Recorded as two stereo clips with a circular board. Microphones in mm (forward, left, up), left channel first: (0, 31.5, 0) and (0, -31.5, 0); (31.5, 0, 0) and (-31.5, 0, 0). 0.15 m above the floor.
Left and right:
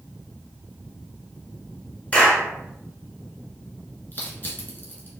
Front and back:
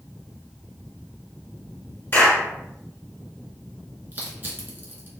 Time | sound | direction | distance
2.1 | a clap | 35° left | 1.4 m
4.1 | crushing | 135° left | 1.0 m